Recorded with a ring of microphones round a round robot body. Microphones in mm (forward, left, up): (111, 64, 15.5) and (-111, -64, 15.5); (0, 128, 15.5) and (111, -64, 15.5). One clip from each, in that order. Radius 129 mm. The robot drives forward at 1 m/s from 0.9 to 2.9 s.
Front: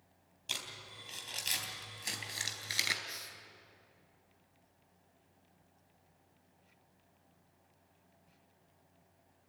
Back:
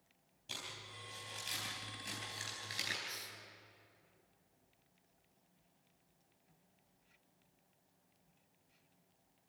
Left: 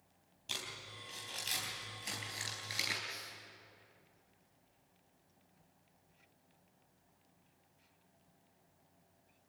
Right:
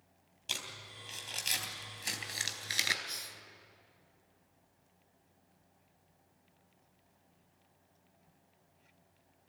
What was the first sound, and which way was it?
Crumpling, 15° right.